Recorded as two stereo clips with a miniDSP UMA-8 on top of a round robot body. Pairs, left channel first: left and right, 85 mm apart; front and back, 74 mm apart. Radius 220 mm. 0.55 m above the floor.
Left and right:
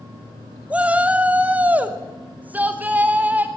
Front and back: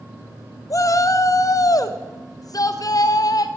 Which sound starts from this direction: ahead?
A shout, at 0.7 s.